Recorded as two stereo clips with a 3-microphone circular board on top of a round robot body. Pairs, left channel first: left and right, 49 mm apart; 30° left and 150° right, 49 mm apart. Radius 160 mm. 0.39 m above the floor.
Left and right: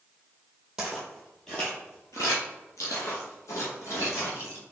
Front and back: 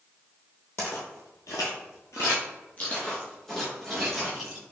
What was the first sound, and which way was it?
Footsteps, 15° right.